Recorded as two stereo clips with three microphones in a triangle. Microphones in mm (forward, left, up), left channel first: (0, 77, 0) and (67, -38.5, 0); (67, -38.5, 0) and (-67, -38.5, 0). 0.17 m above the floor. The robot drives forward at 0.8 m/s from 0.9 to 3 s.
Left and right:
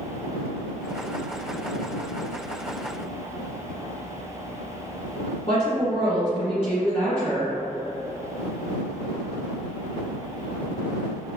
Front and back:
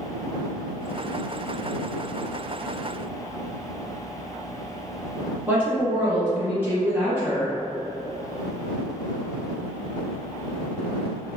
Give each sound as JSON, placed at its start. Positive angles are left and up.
{"t": 5.5, "sound": "a woman speaking", "azimuth_deg": 120, "distance_m": 1.6}